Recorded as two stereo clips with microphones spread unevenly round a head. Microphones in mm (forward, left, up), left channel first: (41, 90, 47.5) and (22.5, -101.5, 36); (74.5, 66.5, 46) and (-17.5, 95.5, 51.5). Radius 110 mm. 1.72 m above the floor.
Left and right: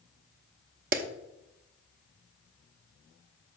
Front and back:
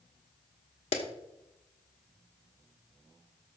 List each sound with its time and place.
0.9 s a clap: 55° right, 0.9 m